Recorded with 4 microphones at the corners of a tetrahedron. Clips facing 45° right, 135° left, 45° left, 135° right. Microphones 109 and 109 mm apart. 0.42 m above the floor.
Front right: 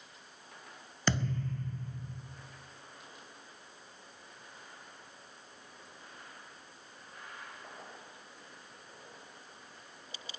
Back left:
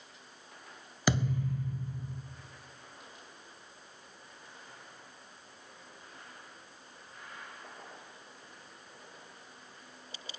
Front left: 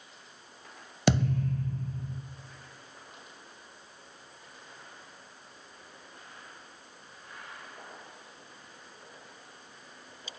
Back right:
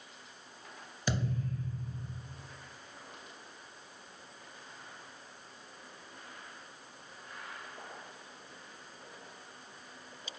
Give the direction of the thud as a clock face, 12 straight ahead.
10 o'clock.